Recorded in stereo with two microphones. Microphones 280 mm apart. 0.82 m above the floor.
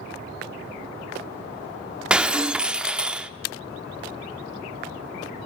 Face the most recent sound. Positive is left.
turn(degrees=-5)  # may be behind; listen again after turning